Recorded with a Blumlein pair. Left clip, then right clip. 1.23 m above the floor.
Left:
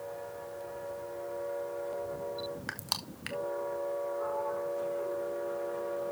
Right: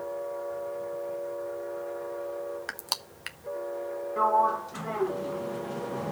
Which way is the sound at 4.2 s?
45° right.